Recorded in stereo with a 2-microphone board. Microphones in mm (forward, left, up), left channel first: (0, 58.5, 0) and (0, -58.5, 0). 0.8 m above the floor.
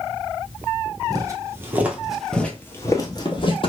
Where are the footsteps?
30° right (ahead or behind), 1.0 m; by 3.7 s 45° left (ahead or behind), 1.1 m.